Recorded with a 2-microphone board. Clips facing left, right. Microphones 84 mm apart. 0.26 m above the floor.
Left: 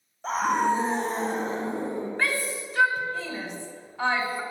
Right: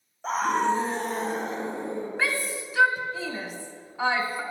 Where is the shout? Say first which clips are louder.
Even; 5° right (ahead or behind), 1.7 m.